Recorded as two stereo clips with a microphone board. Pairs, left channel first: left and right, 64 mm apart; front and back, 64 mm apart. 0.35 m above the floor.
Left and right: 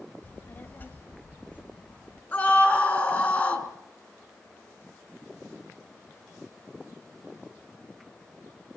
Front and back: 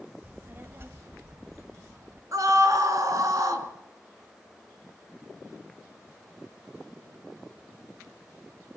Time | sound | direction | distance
0.2 | a child speaking | 130° left | 0.9 m
2.3 | a scream | 155° left | 4 m